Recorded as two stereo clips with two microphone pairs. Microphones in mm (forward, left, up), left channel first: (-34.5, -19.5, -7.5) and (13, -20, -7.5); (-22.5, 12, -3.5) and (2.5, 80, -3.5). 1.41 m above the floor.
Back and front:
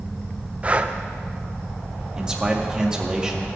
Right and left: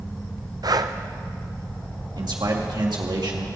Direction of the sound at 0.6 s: 60° left.